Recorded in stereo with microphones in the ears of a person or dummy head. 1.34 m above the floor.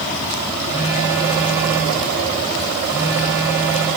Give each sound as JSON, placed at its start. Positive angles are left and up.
{"t": 0.7, "sound": "a phone buzzing", "side_deg": -10, "distance_m": 5.5}